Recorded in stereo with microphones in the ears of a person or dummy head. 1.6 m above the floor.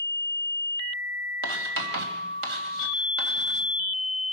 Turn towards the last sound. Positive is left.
turn(degrees=-60)  # may be behind; listen again after turning